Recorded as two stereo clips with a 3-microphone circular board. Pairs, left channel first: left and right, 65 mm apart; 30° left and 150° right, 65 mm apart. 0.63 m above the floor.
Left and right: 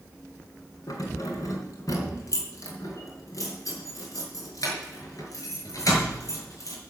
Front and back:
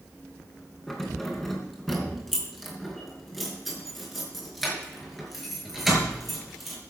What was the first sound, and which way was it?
Keys jangling, 115° left.